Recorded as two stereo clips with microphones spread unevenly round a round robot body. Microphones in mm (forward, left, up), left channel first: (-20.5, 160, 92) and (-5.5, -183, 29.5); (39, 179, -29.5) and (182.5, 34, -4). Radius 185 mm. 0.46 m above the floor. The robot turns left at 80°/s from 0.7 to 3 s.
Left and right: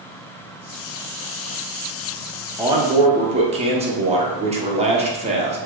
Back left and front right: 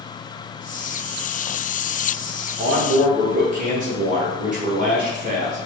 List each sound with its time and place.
2.6 s a man speaking: 30° right, 0.7 m; by 5.6 s 65° right, 0.7 m